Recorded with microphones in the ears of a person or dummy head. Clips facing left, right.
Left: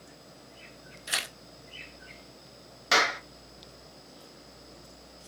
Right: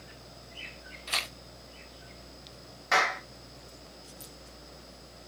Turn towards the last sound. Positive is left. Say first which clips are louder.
# left 1 dB
turn(degrees=45)  # may be behind; listen again after turning